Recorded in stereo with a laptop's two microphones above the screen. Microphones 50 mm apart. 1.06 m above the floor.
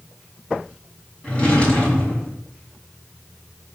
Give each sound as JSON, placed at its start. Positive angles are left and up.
{"t": 1.2, "sound": "a drawer", "side_deg": 25, "distance_m": 5.0}